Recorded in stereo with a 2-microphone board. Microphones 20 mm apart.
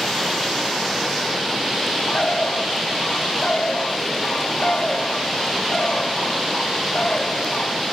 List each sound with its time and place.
2.1 s a bird: 55° left (ahead or behind), 0.7 m